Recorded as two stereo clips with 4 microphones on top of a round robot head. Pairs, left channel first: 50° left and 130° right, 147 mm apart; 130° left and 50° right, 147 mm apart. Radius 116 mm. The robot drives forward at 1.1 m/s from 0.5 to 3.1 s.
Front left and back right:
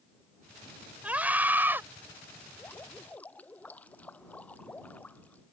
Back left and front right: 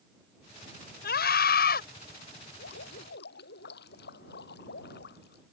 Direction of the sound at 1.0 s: 150° left.